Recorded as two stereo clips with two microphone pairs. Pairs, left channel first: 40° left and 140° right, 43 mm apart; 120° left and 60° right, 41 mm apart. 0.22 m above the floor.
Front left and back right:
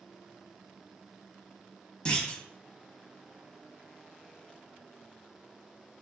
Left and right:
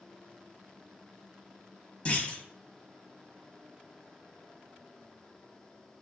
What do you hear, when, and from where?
2.0 s a clunk: 90° left, 0.7 m